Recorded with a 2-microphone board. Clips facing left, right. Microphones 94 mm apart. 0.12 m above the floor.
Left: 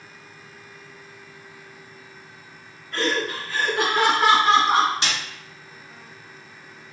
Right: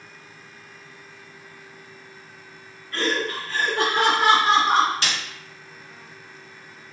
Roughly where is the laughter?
Left.